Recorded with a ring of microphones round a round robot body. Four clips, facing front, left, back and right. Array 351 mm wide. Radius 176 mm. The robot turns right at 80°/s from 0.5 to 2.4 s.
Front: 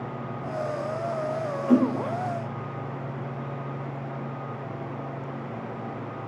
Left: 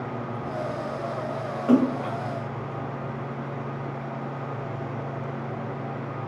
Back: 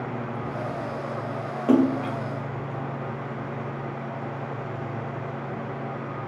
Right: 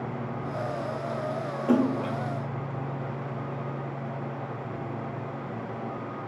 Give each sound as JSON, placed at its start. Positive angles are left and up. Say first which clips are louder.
{"t": 1.7, "sound": "a splash", "louder": "left 3 dB, back 2 dB", "azimuth_deg": 155, "distance_m": 2.5}